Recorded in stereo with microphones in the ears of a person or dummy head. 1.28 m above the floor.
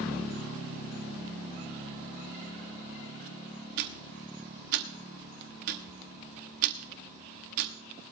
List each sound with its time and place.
3.8 s ticking: 45° right (ahead or behind), 0.9 m